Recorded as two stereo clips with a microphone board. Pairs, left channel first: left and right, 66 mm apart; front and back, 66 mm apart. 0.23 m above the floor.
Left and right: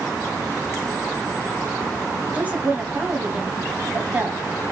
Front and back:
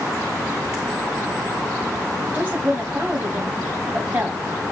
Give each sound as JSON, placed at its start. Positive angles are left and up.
{"t": 2.3, "sound": "a woman speaking", "azimuth_deg": -135, "distance_m": 1.3}